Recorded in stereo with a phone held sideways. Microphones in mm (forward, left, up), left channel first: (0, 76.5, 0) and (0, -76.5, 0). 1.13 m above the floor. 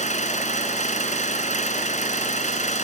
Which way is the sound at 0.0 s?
50° left (ahead or behind).